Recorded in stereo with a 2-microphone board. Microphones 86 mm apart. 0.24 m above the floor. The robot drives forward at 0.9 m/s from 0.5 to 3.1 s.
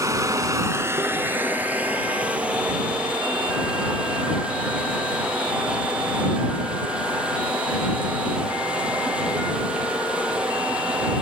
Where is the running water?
40° right (ahead or behind), 0.8 m; by 11.2 s 10° right (ahead or behind), 3 m.